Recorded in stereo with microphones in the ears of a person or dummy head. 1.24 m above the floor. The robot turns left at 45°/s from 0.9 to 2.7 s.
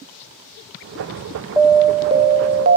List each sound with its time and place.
1.6 s an alarm: 5° right, 0.8 m; by 2.8 s 55° right, 0.8 m